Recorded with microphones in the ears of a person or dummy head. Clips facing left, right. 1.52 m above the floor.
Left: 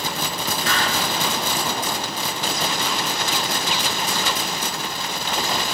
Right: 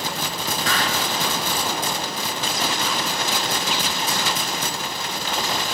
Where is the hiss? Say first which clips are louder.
Even; 30° right (ahead or behind), 1.4 m.